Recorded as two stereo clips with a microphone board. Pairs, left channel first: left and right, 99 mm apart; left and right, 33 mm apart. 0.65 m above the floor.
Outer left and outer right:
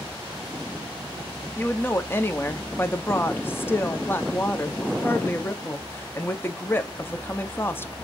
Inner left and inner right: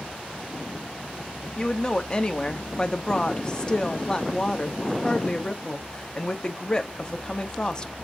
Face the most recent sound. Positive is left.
turn(degrees=20)  # may be behind; listen again after turning